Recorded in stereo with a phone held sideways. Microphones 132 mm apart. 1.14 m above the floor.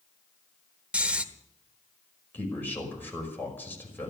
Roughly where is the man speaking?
Centre.